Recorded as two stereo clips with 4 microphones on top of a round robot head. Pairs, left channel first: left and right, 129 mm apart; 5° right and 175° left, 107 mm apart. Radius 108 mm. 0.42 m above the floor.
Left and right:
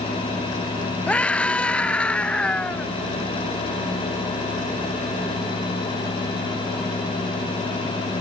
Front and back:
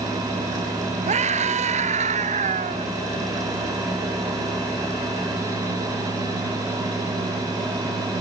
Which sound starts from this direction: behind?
A scream, at 1.1 s.